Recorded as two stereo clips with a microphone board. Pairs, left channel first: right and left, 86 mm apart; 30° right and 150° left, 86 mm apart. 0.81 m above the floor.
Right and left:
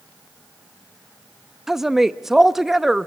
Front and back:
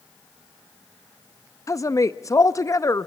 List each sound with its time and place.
1.7 s a woman speaking: 5° left, 0.5 m